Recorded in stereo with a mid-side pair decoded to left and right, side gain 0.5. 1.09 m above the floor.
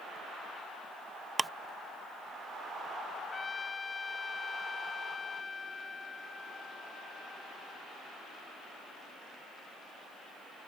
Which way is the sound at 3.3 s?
30° left.